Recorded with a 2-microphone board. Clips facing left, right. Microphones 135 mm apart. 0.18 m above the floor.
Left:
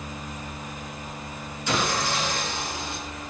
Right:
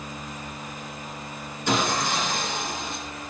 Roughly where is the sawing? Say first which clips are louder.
Right 2 dB; right.